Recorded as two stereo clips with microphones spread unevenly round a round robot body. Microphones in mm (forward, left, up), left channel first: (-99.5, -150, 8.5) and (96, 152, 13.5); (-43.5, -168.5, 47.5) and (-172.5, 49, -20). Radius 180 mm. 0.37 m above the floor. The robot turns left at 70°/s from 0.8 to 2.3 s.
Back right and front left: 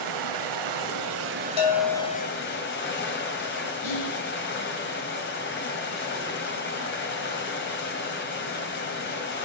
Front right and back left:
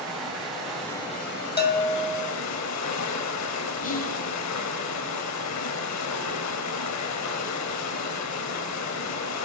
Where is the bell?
115° right, 2.5 m; by 2.3 s 165° right, 2.5 m.